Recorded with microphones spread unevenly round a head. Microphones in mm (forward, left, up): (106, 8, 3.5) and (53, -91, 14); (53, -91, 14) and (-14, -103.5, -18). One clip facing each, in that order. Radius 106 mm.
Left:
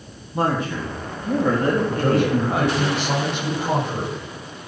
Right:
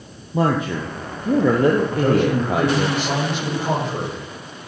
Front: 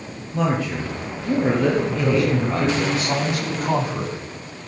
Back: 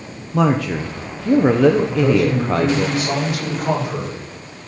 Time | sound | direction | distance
0.3 | a man speaking | 165° right | 1.1 m
1.9 | a man speaking | 175° left | 7.5 m